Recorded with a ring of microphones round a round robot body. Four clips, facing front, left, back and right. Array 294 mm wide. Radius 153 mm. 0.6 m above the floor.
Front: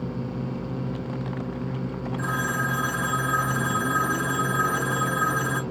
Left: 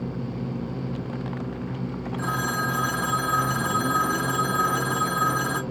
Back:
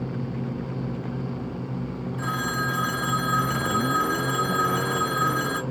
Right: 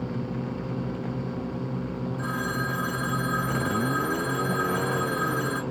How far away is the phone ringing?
About 1.1 m.